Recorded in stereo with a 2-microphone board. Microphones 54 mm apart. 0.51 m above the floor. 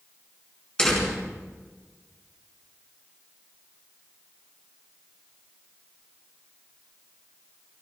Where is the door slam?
15° left (ahead or behind), 4.5 m.